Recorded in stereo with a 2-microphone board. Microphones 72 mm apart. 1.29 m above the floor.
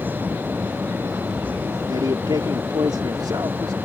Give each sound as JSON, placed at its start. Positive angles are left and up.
{"t": 1.9, "sound": "a man speaking", "side_deg": -75}